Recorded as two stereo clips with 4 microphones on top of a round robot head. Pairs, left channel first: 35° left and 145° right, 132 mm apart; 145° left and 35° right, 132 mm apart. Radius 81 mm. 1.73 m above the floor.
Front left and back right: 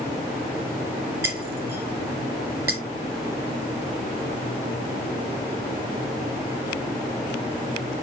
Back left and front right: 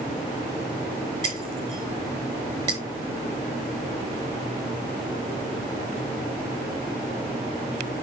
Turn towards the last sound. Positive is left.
turn(degrees=-85)